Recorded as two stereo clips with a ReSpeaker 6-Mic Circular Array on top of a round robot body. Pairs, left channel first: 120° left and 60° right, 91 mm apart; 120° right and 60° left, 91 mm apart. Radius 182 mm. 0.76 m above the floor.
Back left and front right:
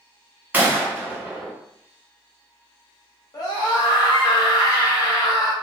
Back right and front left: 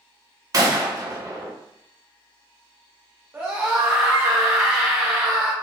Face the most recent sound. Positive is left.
turn(degrees=115)